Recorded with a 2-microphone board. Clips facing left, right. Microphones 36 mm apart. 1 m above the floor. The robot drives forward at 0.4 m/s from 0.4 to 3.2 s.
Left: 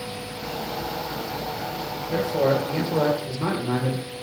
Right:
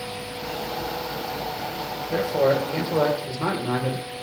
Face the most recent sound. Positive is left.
turn(degrees=-15)  # may be behind; listen again after turning